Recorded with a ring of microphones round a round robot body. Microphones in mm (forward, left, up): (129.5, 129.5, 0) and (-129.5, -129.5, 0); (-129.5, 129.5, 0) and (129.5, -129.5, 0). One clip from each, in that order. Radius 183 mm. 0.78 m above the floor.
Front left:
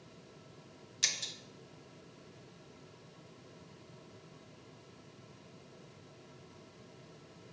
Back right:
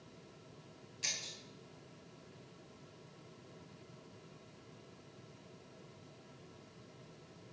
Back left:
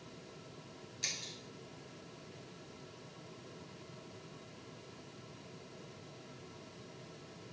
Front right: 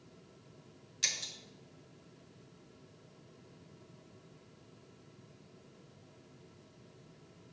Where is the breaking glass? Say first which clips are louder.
Front left 6 dB, front right 5 dB; 25° left, 0.9 m.